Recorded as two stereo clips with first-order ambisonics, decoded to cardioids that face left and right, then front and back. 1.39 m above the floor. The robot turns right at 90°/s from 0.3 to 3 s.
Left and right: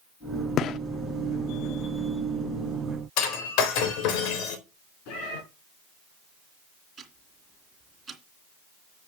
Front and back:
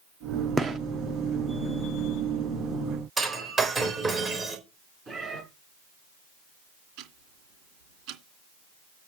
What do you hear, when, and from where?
0.6 s a gunshot: 115° left, 1.0 m; by 0.8 s 135° left, 1.0 m
3.2 s breaking glass: 105° left, 4 m
5.1 s a cat meowing: 105° left, 5.5 m
7.0 s ticking: 165° right, 2.5 m